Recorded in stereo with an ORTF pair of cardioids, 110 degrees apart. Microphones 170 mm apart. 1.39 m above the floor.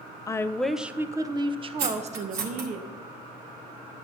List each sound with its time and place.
0.3 s a woman speaking: 20° left, 0.8 m; by 2.8 s 50° right, 1.6 m
1.8 s cutlery clinking: 65° right, 2 m